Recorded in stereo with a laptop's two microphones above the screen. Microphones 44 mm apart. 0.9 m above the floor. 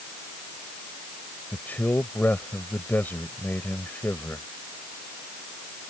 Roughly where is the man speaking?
Left.